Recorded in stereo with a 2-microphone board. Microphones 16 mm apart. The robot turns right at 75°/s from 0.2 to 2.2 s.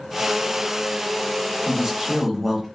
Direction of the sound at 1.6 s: 20° right (ahead or behind).